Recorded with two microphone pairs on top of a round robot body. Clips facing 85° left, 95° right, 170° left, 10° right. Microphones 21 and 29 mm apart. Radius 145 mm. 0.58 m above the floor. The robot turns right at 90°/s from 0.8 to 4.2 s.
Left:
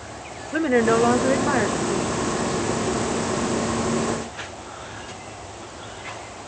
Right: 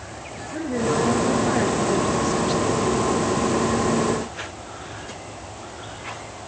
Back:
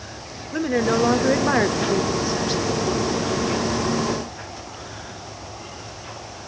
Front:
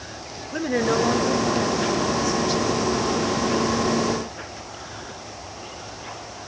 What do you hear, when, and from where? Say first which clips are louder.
0.5 s a woman speaking: left 5 dB, back 1 dB; 80° left, 1.8 m; by 3.0 s 80° right, 1.8 m